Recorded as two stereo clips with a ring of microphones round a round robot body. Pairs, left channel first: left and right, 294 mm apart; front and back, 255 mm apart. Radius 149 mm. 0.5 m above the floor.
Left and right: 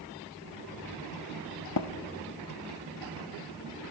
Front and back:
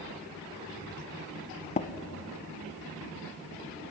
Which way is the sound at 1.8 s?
60° left.